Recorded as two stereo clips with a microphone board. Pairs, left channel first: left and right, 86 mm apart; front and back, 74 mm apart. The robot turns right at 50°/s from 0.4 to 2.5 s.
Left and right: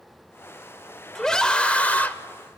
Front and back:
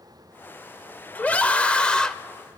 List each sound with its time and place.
1.1 s a scream: 15° left, 0.8 m; by 2.1 s 65° left, 0.8 m